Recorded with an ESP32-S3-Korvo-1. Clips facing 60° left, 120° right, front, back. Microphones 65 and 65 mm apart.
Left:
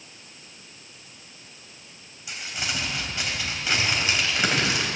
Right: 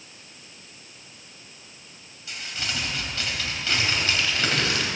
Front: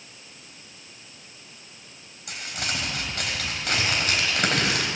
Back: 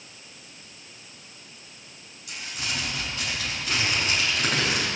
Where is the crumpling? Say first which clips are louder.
Left 1 dB, front 2 dB; 10° right, 3.5 m.